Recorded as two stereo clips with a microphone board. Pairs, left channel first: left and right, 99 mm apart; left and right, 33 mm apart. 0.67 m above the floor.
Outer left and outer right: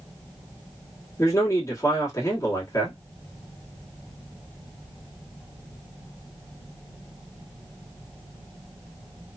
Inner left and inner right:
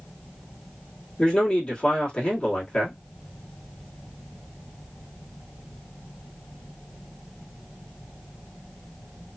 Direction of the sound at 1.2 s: 35° left (ahead or behind).